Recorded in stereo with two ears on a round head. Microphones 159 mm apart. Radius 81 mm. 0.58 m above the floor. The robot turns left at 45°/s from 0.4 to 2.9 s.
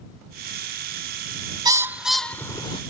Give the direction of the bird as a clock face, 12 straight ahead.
5 o'clock.